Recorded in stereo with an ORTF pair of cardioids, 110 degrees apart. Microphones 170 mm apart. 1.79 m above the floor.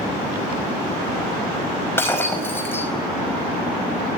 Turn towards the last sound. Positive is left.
turn(degrees=15)